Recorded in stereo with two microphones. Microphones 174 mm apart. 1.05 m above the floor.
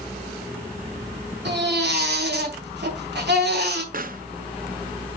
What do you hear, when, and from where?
1.4 s a baby crying: 80° right, 3.5 m
3.9 s a pop: 55° right (ahead or behind), 0.6 m